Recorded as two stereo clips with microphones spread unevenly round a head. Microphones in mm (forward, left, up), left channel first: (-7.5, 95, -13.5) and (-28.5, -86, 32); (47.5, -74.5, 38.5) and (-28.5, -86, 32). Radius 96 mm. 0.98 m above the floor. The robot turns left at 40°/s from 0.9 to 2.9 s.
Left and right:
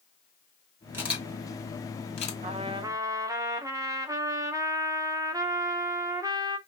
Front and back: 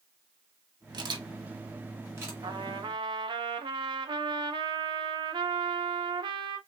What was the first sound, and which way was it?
A camera shutter, straight behind.